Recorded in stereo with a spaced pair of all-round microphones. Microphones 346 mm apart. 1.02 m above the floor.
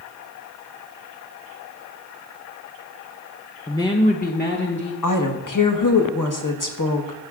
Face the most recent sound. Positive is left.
turn(degrees=65)  # may be behind; listen again after turning